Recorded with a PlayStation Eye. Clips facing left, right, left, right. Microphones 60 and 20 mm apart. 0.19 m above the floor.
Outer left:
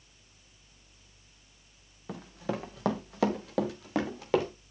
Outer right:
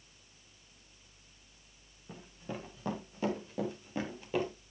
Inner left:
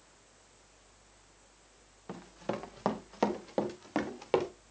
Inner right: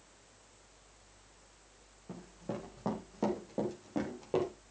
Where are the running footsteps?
80° left, 2.5 m.